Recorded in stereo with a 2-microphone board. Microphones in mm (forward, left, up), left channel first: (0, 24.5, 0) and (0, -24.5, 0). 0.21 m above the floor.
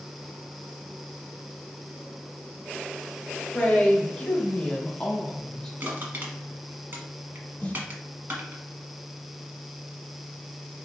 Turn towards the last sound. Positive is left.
turn(degrees=30)  # may be behind; listen again after turning